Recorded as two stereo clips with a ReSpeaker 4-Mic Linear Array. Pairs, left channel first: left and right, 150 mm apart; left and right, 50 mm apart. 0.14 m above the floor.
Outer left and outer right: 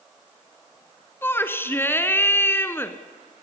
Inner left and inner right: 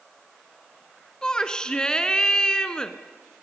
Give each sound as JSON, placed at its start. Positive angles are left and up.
{"t": 1.2, "sound": "a shout", "side_deg": 15, "distance_m": 1.4}